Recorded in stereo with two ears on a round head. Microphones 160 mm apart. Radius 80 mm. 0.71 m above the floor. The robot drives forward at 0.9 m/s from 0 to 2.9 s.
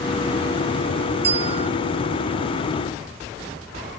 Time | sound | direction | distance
1.2 | a bell | 35° right (ahead or behind) | ?